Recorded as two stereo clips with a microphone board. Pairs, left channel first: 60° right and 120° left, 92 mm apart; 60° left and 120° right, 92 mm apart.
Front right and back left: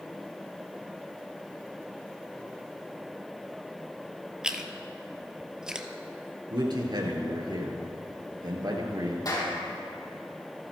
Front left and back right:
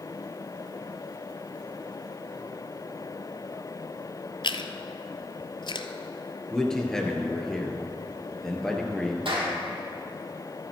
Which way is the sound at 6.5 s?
140° left.